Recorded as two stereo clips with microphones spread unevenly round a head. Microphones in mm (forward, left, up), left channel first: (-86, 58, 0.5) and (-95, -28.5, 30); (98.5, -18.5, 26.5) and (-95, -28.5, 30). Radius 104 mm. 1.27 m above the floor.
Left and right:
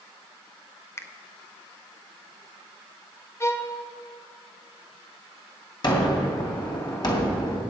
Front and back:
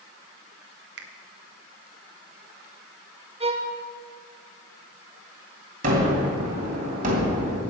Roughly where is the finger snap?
Behind left.